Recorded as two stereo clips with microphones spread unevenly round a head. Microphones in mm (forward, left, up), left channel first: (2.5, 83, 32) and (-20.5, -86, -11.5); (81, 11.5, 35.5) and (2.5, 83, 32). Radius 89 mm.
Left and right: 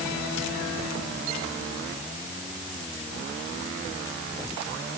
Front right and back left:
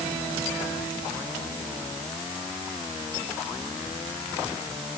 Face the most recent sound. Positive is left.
No sound to turn to.